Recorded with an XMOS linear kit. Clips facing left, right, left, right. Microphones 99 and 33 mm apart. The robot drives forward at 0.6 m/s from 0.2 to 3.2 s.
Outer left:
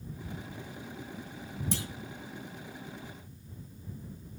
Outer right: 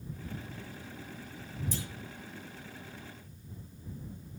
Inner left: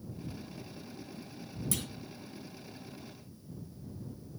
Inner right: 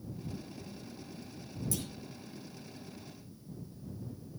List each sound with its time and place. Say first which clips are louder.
1.7 s a clunk: outer left 6 dB, inner left 2 dB; 70° left (ahead or behind), 1.7 m; by 1.9 s 75° left (ahead or behind), 1.7 m